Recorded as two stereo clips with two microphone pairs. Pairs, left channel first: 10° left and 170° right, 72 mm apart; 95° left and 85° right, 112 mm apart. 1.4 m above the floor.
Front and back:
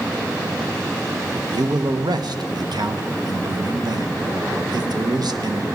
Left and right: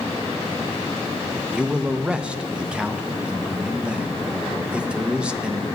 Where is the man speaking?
165° right, 0.8 m.